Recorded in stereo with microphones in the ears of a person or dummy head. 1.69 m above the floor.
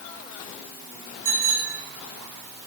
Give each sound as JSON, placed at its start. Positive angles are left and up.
{"t": 1.2, "sound": "a bicycle bell", "side_deg": -65, "distance_m": 3.0}